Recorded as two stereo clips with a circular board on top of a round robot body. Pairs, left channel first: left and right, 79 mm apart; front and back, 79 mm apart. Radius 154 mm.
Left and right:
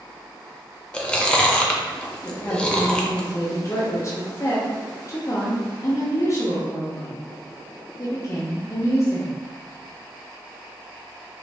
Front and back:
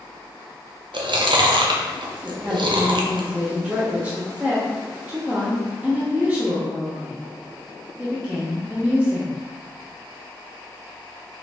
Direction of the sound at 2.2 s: 115° left.